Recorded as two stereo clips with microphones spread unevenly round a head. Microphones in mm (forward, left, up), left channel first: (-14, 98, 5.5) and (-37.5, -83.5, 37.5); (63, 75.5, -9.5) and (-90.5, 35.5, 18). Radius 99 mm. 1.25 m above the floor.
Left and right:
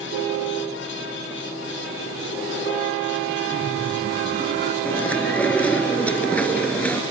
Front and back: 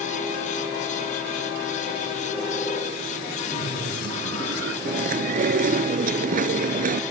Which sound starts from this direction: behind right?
Laughter, at 3.5 s.